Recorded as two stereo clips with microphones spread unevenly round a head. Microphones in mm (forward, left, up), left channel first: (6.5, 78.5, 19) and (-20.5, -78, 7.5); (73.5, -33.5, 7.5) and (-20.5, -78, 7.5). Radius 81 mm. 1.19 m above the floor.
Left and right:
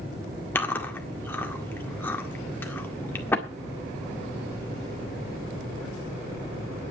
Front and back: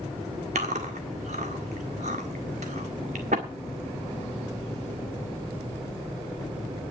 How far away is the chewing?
About 1.7 m.